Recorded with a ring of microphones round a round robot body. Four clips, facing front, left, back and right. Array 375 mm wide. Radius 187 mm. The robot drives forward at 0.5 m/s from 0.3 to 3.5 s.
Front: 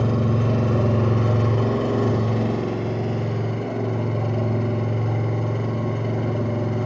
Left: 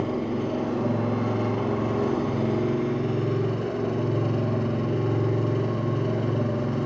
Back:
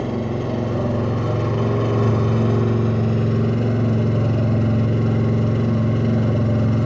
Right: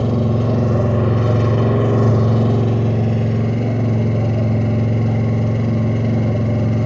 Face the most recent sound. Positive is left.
turn(degrees=-125)